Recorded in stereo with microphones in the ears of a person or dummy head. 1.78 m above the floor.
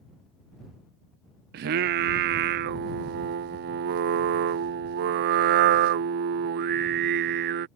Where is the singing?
60° right (ahead or behind).